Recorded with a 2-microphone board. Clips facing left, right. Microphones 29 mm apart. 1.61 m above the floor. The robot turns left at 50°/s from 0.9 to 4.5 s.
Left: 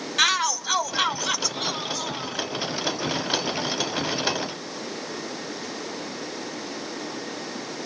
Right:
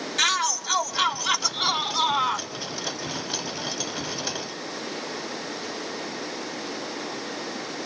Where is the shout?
10° left, 1.1 m; by 2.5 s 70° right, 1.1 m.